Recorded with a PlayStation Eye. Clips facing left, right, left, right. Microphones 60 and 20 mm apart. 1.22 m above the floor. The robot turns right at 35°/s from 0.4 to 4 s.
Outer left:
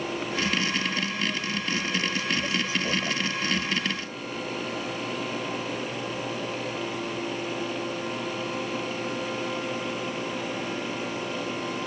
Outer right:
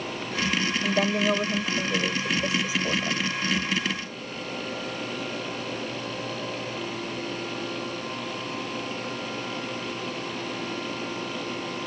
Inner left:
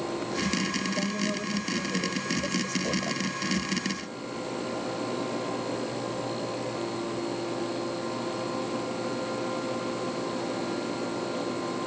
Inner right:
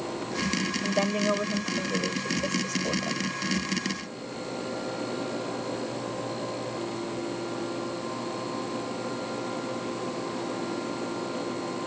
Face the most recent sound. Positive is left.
turn(degrees=30)